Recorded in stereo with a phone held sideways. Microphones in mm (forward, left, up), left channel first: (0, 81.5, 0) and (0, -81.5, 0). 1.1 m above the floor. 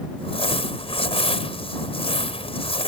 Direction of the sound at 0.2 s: 35° left (ahead or behind).